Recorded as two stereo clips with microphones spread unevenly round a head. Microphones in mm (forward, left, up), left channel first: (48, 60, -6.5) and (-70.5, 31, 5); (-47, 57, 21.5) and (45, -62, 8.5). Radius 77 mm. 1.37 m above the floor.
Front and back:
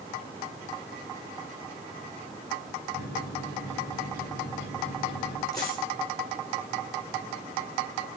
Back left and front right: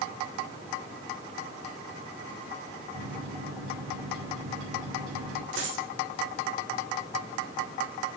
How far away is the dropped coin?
About 8 m.